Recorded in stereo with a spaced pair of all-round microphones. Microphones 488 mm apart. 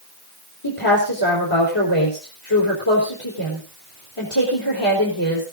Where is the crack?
I don't hear a crack.